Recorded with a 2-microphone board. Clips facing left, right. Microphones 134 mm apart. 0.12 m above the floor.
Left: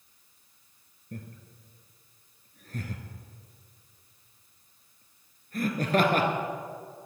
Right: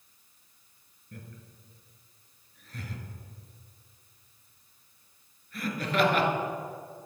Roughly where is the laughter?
Left.